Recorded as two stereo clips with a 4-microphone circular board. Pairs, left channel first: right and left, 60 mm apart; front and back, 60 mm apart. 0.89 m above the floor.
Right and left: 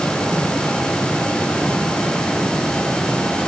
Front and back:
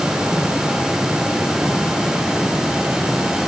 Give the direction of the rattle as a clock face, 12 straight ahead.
No rattle in this recording.